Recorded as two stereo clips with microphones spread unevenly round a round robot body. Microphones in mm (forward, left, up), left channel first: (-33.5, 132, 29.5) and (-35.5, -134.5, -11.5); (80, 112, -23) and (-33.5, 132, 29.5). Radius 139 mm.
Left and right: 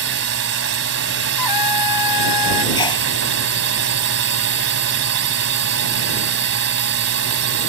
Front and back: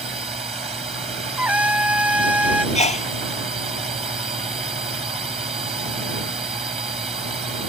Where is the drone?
120° right.